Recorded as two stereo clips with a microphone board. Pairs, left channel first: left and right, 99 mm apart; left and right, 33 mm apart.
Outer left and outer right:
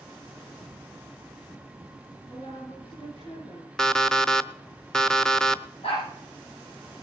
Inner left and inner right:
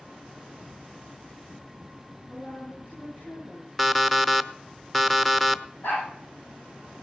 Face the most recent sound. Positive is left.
turn(degrees=75)  # may be behind; listen again after turning